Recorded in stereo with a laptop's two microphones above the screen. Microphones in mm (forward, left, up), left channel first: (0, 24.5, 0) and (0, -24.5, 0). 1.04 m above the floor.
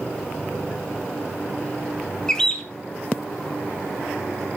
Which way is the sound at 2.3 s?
15° left (ahead or behind).